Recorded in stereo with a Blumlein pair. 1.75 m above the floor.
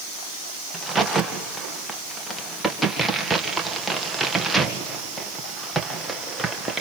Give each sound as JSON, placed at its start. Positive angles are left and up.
{"t": 0.7, "sound": "a crack", "azimuth_deg": -5, "distance_m": 2.0}